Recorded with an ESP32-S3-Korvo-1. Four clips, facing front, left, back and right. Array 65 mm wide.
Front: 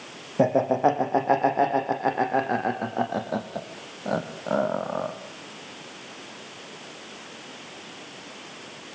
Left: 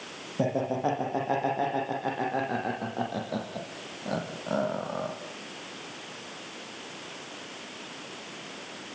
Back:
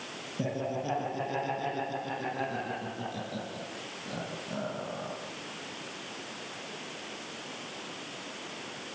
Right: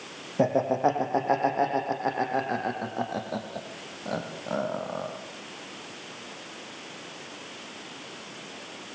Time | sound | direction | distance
0.4 | laughter | 20° right | 6.5 m